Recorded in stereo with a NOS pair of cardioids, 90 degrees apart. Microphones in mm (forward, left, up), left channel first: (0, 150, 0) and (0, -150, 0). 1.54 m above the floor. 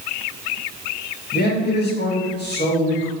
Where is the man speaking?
35° left, 1.7 m.